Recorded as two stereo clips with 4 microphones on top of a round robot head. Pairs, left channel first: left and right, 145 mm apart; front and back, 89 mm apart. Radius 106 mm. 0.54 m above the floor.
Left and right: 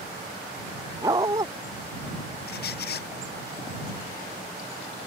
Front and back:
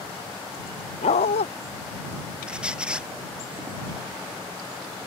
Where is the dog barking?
20° right.